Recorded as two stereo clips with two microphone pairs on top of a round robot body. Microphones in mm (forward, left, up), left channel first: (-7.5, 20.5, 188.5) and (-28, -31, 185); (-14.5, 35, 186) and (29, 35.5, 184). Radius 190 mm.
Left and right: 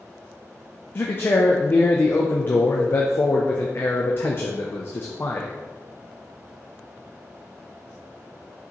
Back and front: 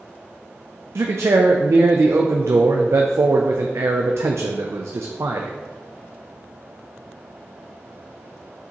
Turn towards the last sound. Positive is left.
turn(degrees=20)